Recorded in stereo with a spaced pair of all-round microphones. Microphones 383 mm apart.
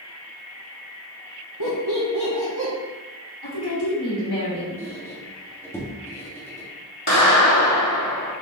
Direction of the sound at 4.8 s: 5° left (ahead or behind).